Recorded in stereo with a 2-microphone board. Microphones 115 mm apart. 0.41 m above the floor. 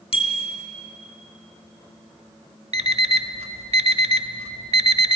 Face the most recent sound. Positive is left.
turn(degrees=-60)  # may be behind; listen again after turning